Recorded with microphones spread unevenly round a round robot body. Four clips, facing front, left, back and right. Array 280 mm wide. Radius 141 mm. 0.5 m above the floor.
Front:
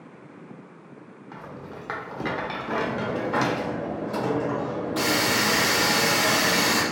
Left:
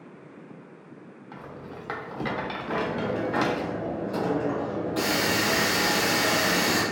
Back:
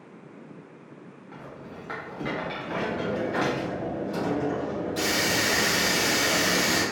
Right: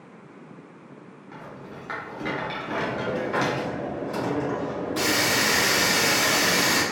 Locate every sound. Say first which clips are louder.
1.3 s a rattle: even, front 3 dB; 20° left, 0.8 m
2.7 s a hiss: even, front 2 dB; 35° right, 1.7 m